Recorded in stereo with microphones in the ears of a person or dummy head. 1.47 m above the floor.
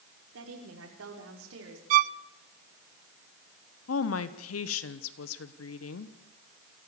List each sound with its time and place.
0.3 s a woman speaking: 85° right, 5.5 m; by 1.8 s 70° right (ahead or behind), 4.5 m
1.9 s a violin: 45° right (ahead or behind), 0.5 m
3.9 s a woman speaking: 75° left (ahead or behind), 1.1 m